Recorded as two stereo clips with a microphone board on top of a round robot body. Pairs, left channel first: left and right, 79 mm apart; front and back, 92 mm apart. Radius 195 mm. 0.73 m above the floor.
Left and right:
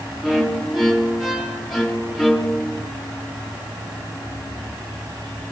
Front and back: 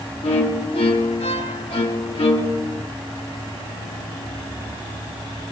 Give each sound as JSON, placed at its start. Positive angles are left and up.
{"t": 0.2, "sound": "a violin", "azimuth_deg": -5, "distance_m": 1.8}